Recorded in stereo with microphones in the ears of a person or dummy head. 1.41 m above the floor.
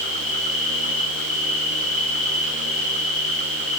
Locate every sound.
0.0 s an insect: 35° left (ahead or behind), 4 m